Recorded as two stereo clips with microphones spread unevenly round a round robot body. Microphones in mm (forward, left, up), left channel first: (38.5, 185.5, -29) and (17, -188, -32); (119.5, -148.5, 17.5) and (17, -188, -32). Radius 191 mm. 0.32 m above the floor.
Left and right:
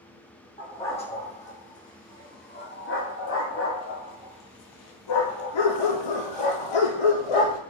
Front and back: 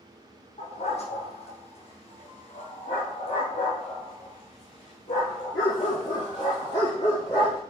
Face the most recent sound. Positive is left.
turn(degrees=90)